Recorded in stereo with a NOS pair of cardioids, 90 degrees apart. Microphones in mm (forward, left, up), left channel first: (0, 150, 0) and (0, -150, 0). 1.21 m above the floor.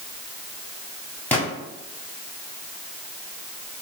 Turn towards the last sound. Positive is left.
turn(degrees=5)